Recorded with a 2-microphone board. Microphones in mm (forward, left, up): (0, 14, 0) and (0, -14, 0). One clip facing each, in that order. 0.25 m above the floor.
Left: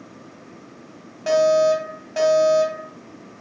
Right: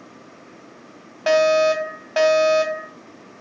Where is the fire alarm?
40° right (ahead or behind), 2.5 m.